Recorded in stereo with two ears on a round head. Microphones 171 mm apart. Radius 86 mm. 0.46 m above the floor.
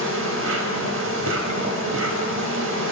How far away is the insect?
About 0.8 m.